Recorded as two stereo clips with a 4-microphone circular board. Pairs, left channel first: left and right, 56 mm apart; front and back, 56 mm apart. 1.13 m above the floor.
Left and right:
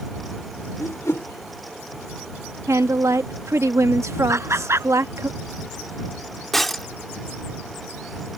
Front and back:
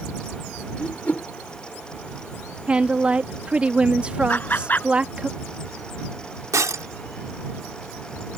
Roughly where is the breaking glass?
Behind.